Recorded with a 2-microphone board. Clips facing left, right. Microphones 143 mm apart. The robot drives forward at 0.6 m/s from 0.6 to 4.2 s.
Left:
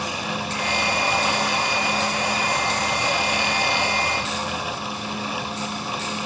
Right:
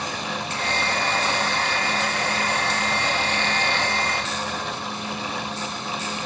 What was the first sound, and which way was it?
Only background noise.